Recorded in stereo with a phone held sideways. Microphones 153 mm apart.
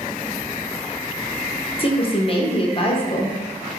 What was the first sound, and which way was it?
A woman speaking, 35° left (ahead or behind).